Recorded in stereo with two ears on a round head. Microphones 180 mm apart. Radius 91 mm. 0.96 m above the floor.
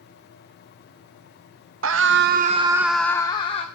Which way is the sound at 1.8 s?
70° right (ahead or behind).